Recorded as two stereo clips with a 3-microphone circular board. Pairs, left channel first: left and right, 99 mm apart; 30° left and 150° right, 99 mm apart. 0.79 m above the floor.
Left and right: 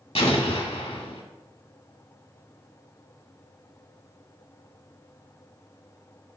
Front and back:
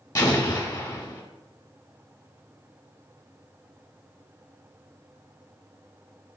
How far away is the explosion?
About 1.6 m.